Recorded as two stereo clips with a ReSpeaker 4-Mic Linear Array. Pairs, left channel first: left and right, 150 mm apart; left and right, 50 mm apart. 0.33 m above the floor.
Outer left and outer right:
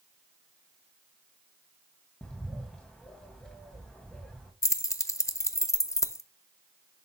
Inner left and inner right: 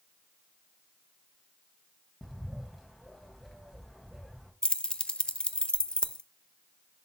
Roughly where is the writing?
No writing in this recording.